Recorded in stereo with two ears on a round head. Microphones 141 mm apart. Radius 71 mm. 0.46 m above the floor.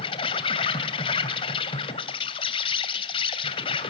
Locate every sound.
0.0 s an insect: 35° left (ahead or behind), 2.5 m